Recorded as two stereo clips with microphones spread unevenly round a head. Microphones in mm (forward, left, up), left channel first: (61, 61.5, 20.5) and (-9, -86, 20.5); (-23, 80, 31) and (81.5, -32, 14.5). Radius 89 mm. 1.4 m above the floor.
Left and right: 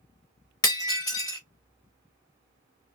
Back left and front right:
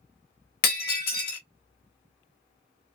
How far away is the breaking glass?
About 1.6 m.